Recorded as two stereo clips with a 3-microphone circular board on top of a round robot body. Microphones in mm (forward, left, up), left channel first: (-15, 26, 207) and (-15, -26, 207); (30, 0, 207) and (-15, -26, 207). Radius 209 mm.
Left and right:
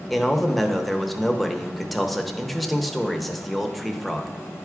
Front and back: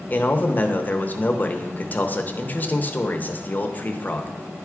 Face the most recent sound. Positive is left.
turn(degrees=0)